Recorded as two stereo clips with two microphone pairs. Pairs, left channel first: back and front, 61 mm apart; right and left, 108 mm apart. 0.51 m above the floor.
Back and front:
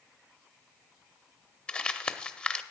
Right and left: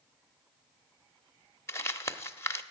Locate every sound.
1.7 s crumpling: 120° right, 0.8 m